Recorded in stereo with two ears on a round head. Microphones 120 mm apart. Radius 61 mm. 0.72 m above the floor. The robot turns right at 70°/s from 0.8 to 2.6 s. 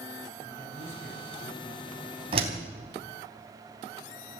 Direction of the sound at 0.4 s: 150° left.